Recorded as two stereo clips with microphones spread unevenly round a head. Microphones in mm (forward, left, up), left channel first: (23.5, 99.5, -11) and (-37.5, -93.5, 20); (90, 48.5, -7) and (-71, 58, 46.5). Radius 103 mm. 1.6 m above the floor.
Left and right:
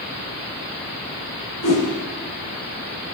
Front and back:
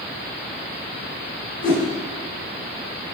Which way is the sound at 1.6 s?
35° left.